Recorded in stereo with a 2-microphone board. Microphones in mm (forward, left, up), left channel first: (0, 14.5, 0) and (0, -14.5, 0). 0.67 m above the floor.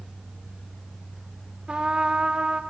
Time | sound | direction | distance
1.7 | a trumpet | 35° right (ahead or behind) | 0.5 m